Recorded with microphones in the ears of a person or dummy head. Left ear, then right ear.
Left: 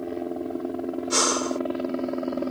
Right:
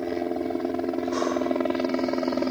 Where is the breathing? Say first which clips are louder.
Left 4 dB; 60° left (ahead or behind).